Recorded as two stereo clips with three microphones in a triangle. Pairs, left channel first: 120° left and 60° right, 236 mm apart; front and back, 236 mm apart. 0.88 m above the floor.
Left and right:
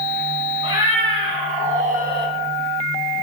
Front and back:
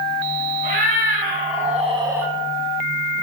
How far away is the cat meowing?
About 2 m.